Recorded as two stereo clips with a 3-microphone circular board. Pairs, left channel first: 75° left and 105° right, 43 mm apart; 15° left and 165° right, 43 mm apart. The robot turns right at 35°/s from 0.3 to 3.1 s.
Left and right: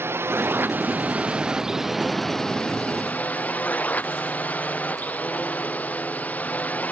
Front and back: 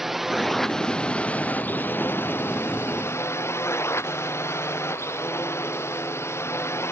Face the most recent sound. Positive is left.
turn(degrees=20)